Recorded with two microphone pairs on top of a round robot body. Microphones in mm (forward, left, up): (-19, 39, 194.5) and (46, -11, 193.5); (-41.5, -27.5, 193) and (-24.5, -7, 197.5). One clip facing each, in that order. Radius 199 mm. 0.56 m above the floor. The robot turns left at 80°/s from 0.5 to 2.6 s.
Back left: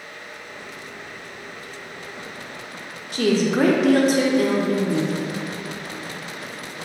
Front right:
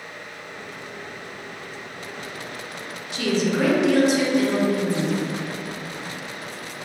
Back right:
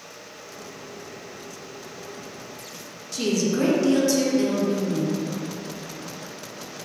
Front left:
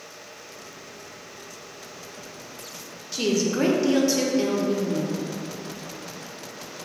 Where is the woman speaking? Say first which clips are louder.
Back left 3 dB, even; 130° left, 0.7 m.